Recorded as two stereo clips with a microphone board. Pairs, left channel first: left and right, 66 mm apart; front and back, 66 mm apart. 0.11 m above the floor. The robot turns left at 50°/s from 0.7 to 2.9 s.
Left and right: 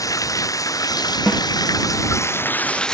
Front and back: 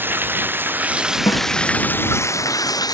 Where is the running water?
120° left; by 2.9 s 10° left.